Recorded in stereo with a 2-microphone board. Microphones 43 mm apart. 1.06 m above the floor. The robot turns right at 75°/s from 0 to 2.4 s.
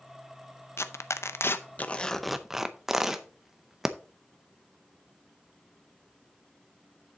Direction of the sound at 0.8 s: 65° left (ahead or behind).